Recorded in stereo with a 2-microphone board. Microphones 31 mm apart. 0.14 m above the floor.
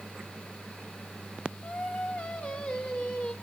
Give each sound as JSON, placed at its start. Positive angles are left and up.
{"t": 1.6, "sound": "singing", "side_deg": 50, "distance_m": 3.0}